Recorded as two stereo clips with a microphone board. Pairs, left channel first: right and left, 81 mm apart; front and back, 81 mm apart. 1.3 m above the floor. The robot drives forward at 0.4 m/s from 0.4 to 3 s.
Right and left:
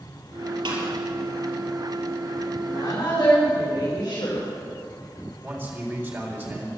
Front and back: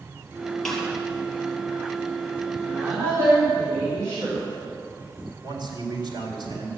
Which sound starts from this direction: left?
A snare drum, at 0.7 s.